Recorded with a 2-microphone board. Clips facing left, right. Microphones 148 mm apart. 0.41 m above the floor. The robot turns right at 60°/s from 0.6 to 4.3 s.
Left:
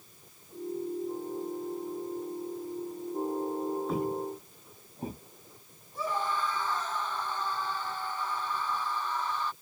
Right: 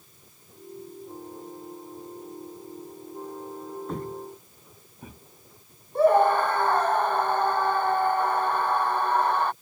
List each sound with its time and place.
3.9 s footsteps: 5° left (ahead or behind); by 5.2 s 40° left (ahead or behind)
6.0 s a scream: 60° right (ahead or behind)